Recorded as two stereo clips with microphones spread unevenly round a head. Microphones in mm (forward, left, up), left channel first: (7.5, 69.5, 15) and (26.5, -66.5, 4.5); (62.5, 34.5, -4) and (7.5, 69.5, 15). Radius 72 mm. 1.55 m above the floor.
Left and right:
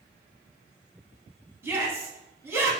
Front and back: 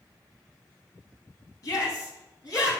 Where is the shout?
10° right, 3 m.